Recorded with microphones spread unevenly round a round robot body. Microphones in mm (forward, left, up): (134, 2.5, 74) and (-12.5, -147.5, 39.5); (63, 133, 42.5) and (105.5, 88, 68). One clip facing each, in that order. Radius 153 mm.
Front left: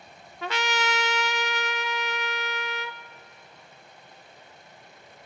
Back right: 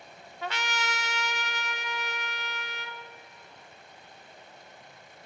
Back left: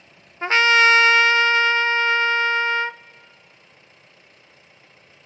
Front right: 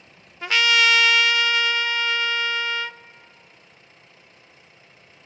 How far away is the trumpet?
About 0.5 m.